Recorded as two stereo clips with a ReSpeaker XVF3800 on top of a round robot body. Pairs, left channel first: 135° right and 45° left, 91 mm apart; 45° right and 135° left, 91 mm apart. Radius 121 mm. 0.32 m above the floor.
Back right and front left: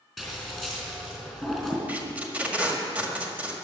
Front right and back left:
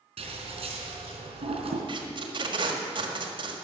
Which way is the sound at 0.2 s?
130° left.